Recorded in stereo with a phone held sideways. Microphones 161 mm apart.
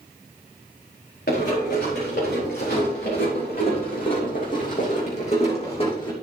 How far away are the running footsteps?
About 4.5 m.